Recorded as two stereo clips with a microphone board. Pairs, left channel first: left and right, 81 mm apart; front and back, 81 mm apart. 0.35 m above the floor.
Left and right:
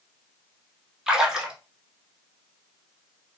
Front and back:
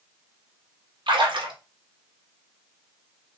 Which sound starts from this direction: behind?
A splash, at 1.1 s.